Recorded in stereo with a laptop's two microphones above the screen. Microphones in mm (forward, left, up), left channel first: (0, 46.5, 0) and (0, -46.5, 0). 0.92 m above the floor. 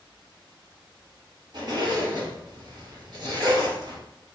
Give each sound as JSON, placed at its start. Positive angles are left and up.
{"t": 1.5, "sound": "a zipper", "side_deg": -55, "distance_m": 1.2}